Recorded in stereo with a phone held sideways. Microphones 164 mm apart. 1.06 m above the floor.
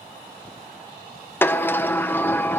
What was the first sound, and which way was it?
A sliding door, 10° left (ahead or behind).